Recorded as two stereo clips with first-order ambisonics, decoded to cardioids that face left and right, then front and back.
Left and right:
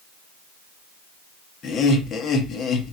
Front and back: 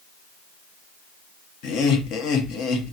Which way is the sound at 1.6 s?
30° left.